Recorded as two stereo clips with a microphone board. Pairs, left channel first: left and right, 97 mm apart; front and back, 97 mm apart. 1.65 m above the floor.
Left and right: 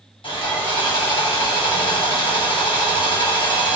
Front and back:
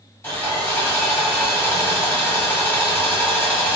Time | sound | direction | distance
0.2 | sawing | 65° left | 1.2 m